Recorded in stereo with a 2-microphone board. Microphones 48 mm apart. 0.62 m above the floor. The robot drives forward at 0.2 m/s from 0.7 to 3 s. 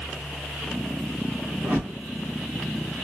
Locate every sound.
1.6 s a whoosh: 55° right (ahead or behind), 1.7 m